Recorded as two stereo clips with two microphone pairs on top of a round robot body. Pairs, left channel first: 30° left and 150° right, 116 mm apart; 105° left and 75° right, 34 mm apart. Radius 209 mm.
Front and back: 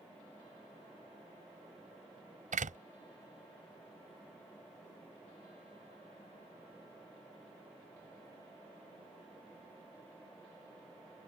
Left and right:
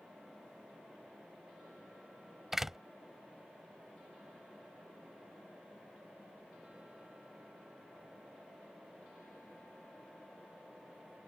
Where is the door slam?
155° right.